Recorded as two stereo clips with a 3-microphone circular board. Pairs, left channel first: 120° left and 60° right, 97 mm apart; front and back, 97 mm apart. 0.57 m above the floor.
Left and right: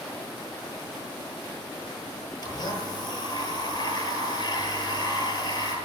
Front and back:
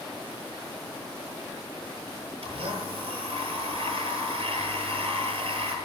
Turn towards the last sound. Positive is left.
turn(degrees=165)